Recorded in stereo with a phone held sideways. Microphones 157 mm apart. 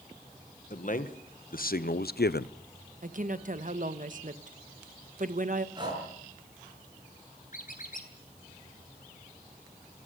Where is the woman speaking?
55° right (ahead or behind), 1.2 m.